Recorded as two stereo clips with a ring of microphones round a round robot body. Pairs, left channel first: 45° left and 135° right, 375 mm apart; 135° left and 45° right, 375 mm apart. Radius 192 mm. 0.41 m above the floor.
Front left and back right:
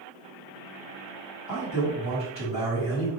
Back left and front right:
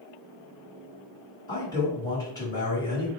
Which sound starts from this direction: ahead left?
A man speaking, at 1.5 s.